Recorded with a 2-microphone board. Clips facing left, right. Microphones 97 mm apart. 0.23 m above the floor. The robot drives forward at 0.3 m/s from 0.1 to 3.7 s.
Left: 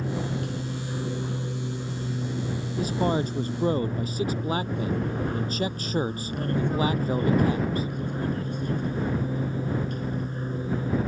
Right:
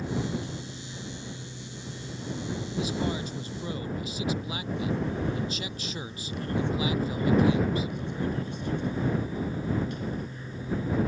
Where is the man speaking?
45° left (ahead or behind).